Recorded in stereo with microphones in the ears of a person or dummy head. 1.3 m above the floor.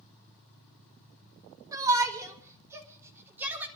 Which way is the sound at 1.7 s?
20° right (ahead or behind).